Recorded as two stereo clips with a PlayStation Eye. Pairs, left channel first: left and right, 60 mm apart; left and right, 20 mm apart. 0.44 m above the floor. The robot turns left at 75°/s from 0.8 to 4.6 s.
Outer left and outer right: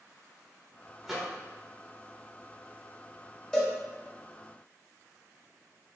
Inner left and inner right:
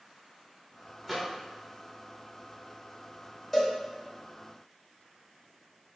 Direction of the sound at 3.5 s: 10° left (ahead or behind).